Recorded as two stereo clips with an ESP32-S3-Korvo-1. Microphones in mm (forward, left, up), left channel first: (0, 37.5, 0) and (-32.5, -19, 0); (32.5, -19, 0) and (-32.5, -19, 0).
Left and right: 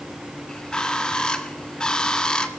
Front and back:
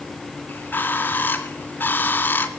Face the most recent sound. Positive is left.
turn(degrees=-5)